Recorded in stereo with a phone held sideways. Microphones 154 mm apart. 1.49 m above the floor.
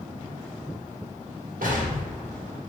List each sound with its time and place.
1.6 s an explosion: 70° right (ahead or behind), 1.2 m